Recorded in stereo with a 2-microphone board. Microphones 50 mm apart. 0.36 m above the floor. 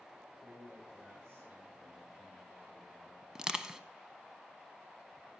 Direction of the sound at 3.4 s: 10° right (ahead or behind).